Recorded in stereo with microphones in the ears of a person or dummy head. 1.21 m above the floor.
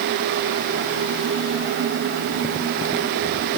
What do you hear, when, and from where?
Only background noise.